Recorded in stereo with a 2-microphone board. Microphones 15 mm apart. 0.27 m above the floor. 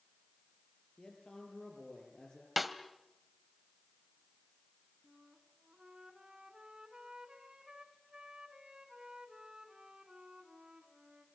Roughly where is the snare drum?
Centre.